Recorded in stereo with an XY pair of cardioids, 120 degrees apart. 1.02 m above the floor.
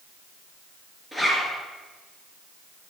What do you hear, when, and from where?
1.1 s a zipper: straight ahead, 3 m